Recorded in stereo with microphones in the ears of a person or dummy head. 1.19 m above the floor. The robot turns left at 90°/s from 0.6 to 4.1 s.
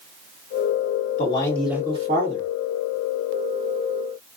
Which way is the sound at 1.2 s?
45° left.